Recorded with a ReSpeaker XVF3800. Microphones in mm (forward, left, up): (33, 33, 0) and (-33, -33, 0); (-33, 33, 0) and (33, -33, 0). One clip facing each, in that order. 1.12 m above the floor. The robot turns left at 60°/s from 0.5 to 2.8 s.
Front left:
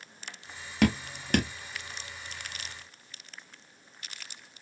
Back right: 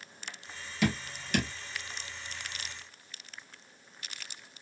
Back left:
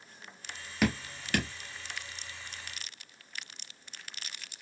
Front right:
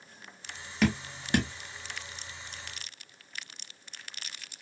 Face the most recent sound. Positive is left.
turn(degrees=-70)